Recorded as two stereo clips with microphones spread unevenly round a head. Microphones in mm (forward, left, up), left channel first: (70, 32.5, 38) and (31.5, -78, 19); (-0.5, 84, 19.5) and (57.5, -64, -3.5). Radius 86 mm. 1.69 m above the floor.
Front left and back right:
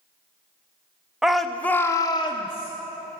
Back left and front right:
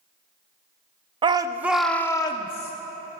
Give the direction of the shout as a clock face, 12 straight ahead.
12 o'clock.